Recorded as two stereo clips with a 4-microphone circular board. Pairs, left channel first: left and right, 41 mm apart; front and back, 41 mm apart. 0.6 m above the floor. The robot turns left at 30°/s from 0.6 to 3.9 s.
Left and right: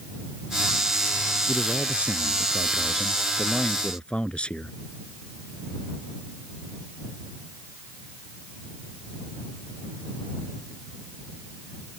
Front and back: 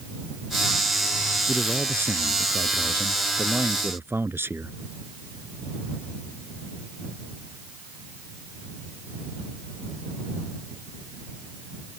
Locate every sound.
1.5 s a man speaking: 135° right; by 4.8 s 155° left